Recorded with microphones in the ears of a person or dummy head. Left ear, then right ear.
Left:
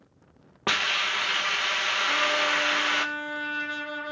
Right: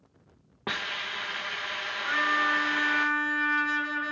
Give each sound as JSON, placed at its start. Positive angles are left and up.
{"t": 0.7, "sound": "a hiss", "side_deg": 30, "distance_m": 1.3}
{"t": 2.0, "sound": "a trumpet", "side_deg": -85, "distance_m": 8.0}